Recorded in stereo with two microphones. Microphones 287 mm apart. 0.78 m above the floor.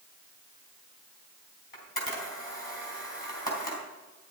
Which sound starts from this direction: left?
A camera shutter, at 1.7 s.